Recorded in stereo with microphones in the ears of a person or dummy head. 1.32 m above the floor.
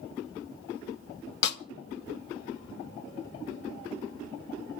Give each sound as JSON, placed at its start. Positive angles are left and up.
{"t": 1.4, "sound": "a snare drum", "side_deg": 65, "distance_m": 1.1}